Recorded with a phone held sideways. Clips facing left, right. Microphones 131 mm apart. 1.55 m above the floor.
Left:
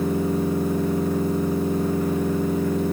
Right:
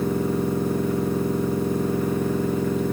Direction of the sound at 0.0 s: 10° left (ahead or behind).